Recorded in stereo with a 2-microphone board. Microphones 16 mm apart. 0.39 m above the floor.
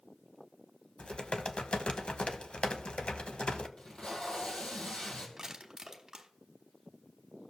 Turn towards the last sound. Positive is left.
turn(degrees=-25)  # may be behind; listen again after turning